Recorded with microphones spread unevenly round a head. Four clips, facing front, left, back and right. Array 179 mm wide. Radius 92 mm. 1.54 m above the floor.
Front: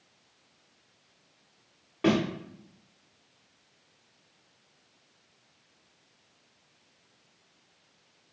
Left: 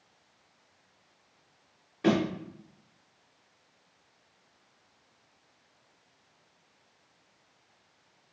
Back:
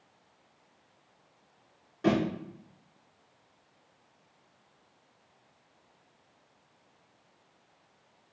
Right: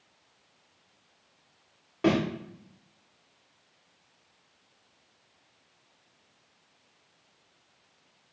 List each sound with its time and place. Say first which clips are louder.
2.0 s a thud: right 1 dB, front 2 dB; 55° right, 1.5 m